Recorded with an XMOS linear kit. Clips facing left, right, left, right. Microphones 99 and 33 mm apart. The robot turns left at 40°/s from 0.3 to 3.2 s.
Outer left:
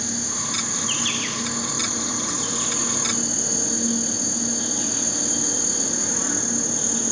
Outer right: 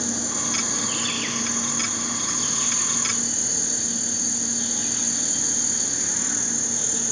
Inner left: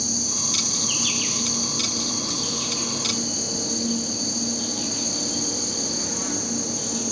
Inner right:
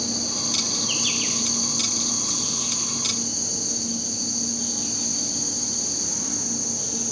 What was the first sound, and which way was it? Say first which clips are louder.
An insect: outer right 1 dB, inner right 1 dB; 140° right.